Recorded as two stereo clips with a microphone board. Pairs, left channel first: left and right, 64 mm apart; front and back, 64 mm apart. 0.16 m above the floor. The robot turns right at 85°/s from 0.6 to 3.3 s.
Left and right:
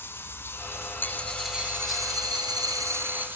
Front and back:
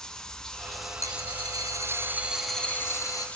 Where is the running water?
75° left, 1.3 m; by 3.4 s 55° right, 1.3 m.